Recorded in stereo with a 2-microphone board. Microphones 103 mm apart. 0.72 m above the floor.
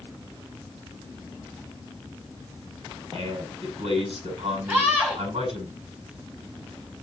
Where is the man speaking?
60° right (ahead or behind), 6 m.